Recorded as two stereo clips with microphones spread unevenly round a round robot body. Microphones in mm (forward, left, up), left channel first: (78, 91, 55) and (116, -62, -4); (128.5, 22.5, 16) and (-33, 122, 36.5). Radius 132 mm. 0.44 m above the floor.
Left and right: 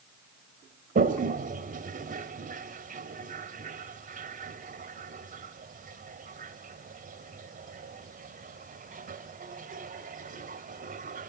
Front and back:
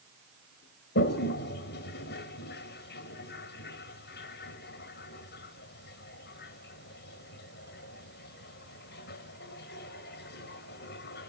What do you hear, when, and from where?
0.9 s a toilet flushing: 65° right, 1.2 m